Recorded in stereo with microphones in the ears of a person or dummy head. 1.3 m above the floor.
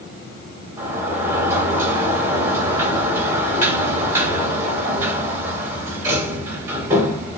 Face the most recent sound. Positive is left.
turn(degrees=-10)  # may be behind; listen again after turning